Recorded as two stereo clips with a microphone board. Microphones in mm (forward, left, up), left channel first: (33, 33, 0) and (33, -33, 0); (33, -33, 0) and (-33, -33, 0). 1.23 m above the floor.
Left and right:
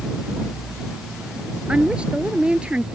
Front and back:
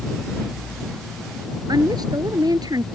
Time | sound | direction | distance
1.7 | a woman speaking | 165° right | ?